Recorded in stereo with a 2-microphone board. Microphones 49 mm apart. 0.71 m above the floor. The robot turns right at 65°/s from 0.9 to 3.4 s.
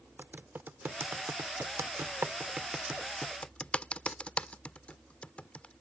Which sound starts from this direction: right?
Typing on a keyboard, at 0.2 s.